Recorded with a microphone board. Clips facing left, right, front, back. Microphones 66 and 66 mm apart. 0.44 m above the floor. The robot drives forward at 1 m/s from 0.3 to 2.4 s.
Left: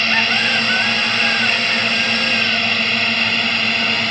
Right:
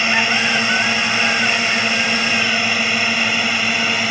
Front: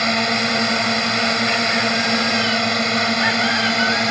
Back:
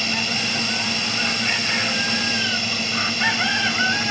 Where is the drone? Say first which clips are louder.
Right 1 dB, front 7 dB; 15° right; by 4.1 s 10° right.